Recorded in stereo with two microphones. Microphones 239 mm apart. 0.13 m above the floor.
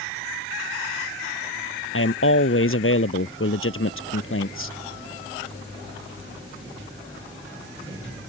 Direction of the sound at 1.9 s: 60° left (ahead or behind).